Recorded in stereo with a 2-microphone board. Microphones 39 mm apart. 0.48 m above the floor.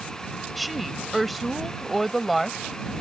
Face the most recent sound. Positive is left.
turn(degrees=0)  # may be behind; listen again after turning